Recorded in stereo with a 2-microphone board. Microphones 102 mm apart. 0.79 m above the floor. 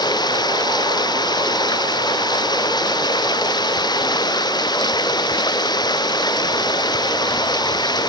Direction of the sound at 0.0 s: 45° left (ahead or behind).